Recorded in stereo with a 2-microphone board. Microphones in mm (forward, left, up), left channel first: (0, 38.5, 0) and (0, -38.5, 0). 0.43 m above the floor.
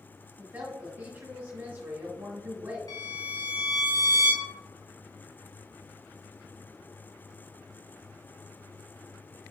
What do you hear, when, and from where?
0.4 s a woman speaking: 25° right (ahead or behind), 1.6 m
2.9 s a violin: 55° left (ahead or behind), 0.7 m